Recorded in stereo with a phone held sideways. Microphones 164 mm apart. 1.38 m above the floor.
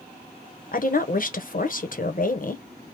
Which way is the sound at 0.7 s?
60° left (ahead or behind).